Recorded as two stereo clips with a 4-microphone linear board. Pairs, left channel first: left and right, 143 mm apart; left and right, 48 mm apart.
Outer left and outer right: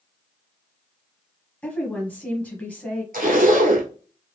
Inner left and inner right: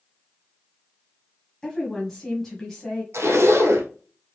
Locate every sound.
1.6 s a woman speaking: 10° left (ahead or behind), 1.1 m
3.1 s a zipper: 80° right, 1.3 m